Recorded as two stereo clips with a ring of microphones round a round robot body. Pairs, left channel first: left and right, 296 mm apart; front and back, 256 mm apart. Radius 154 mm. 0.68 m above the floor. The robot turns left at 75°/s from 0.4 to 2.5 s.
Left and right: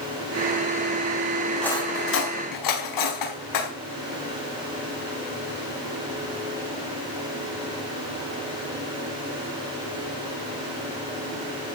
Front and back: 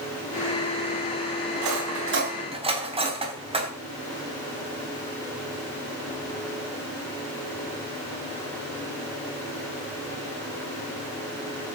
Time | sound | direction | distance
1.6 | cutlery clinking | 175° right | 4 m